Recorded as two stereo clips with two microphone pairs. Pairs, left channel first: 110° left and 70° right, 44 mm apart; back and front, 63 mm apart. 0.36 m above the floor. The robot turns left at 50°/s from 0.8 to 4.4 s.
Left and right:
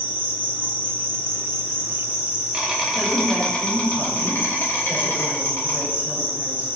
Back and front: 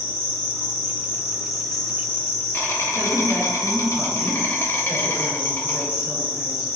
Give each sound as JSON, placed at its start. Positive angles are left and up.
{"t": 0.0, "sound": "an insect", "azimuth_deg": -45, "distance_m": 0.8}
{"t": 2.9, "sound": "a woman speaking", "azimuth_deg": -10, "distance_m": 1.2}